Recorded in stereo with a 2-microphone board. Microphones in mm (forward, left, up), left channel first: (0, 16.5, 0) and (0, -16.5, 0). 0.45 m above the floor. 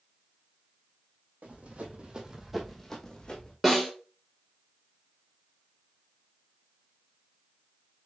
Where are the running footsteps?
60° right (ahead or behind), 1.5 m; by 3.5 s 35° left (ahead or behind), 1.7 m.